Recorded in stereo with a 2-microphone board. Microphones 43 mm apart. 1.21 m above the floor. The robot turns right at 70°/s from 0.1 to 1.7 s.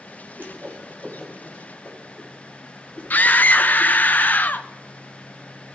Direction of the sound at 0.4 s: 55° right (ahead or behind).